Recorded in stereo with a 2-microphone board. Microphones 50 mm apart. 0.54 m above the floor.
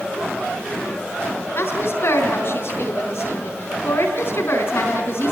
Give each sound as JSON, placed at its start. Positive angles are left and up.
{"t": 1.6, "sound": "a woman speaking", "side_deg": 50, "distance_m": 5.0}